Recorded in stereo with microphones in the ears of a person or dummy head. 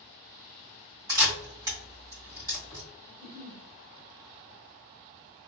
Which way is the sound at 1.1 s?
15° right (ahead or behind).